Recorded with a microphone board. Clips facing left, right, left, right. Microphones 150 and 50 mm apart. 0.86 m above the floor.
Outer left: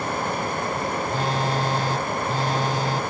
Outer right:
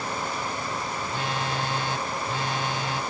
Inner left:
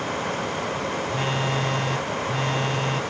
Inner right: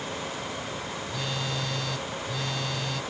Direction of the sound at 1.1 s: 40° left (ahead or behind).